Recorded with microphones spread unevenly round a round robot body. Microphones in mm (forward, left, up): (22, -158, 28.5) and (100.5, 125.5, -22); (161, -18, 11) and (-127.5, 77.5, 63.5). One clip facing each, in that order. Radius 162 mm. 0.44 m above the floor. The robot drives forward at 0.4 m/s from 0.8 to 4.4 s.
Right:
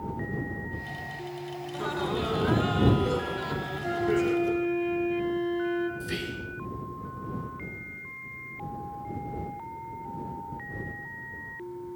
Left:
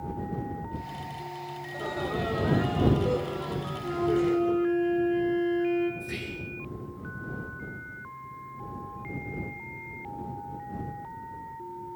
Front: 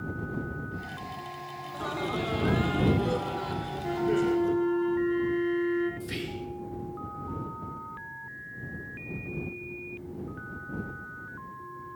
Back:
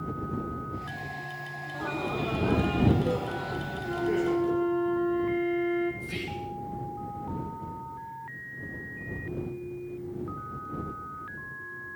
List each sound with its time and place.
1.6 s laughter: 40° right, 2.5 m; by 4.7 s 70° right, 2.0 m
3.8 s a flute: 50° right, 4 m; by 5.9 s 55° right, 3.5 m
6.0 s whispering: 70° right, 5.5 m